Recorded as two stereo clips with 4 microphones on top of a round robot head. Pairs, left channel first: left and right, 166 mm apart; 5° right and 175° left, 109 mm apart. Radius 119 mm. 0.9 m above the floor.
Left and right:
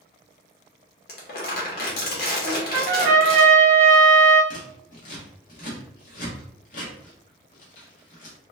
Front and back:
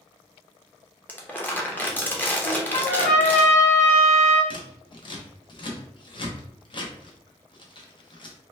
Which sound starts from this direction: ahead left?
Scissors, at 4.5 s.